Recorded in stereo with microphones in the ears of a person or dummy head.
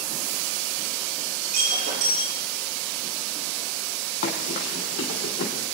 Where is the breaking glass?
40° right (ahead or behind), 8 m.